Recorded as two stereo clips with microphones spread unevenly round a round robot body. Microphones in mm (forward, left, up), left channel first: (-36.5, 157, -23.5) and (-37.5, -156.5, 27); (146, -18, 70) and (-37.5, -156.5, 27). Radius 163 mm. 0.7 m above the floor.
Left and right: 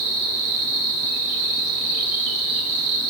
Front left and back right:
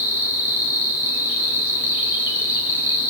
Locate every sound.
0.0 s an insect: 60° right, 2.5 m